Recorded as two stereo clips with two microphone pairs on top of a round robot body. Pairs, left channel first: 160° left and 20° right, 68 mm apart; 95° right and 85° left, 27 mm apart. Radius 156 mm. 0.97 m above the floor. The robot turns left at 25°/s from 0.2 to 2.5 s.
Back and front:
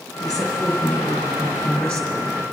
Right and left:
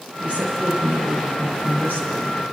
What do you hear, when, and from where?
0.2 s a woman speaking: 125° left, 4 m; by 2.3 s 70° left, 4 m